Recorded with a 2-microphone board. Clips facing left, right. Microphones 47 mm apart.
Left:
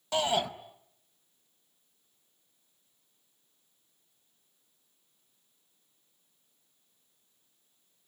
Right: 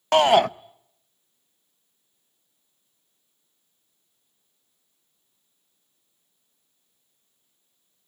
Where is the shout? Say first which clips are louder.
Right 12 dB; 60° right (ahead or behind), 0.5 m.